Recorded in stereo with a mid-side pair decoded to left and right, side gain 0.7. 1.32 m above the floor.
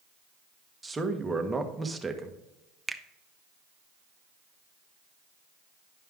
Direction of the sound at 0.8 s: 10° right.